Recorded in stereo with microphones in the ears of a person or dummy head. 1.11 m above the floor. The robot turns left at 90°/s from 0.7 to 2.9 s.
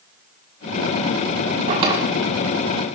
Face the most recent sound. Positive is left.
turn(degrees=115)